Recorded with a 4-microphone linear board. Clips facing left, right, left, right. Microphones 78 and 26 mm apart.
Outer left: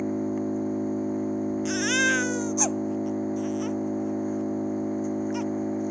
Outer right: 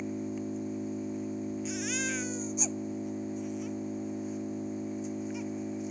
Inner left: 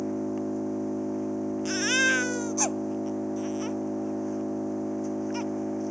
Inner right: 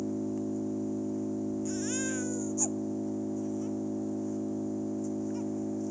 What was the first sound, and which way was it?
An engine running, 40° left (ahead or behind).